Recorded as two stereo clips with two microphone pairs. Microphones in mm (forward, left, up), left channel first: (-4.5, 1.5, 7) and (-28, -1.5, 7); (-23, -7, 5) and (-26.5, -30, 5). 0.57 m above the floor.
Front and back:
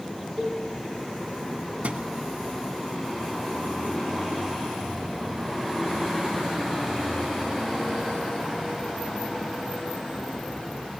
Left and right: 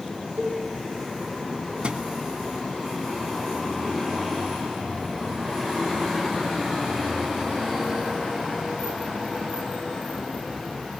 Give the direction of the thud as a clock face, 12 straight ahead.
5 o'clock.